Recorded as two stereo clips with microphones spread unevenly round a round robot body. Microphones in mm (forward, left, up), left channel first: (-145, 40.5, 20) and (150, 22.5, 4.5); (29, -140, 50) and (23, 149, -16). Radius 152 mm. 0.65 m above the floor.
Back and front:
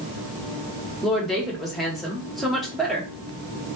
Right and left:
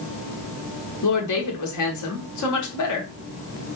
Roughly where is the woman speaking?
Right.